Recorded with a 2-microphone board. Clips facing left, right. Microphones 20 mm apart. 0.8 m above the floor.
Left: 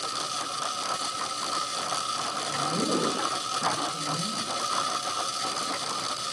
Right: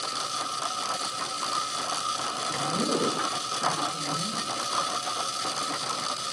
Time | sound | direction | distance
2.5 | a woman speaking | 20° left (ahead or behind) | 1.3 m